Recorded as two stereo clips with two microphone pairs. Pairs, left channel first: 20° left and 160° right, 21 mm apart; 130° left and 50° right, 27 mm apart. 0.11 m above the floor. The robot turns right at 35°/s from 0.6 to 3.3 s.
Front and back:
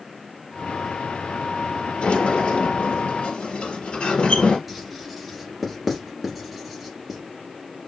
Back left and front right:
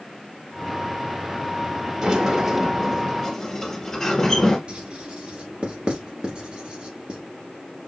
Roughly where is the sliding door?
Ahead.